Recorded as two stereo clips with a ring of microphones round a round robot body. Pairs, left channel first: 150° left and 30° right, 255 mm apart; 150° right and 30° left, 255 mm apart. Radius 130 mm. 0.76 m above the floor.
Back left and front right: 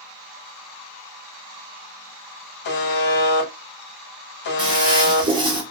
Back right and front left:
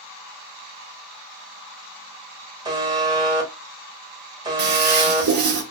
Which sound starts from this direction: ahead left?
A toilet flushing, at 4.6 s.